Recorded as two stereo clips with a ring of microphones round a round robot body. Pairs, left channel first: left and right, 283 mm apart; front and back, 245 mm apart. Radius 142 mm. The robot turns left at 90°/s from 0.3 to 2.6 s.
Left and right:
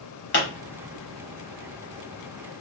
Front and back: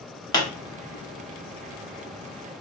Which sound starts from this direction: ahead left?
A pop, at 0.3 s.